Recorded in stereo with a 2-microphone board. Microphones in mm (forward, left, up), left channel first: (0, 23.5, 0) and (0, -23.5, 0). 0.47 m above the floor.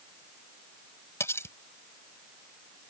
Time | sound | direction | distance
1.2 | cutlery clinking | 70° left (ahead or behind) | ?